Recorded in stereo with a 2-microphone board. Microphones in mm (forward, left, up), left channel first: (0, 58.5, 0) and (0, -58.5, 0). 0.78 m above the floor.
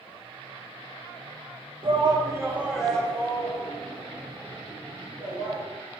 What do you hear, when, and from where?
1.8 s a shout: 50° right (ahead or behind), 1.4 m; by 5.6 s 50° left (ahead or behind), 4 m